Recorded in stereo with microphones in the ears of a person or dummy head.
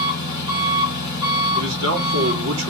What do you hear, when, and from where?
0.0 s an engine running: 15° right (ahead or behind), 1.7 m
1.6 s a man speaking: 80° right, 2.5 m